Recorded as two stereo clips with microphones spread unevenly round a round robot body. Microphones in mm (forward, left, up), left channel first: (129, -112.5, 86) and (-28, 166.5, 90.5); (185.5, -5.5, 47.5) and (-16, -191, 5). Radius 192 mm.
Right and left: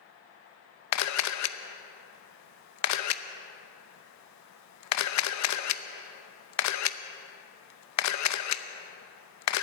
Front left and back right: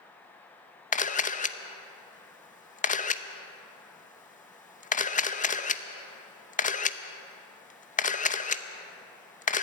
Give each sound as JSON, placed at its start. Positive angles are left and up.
{"t": 0.9, "sound": "a camera shutter", "azimuth_deg": -25, "distance_m": 0.8}